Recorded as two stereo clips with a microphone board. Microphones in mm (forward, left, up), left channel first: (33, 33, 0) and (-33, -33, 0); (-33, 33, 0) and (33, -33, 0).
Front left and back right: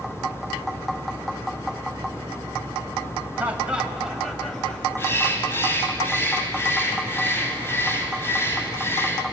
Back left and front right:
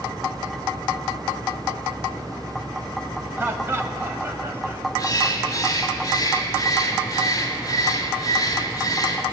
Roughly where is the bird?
Left.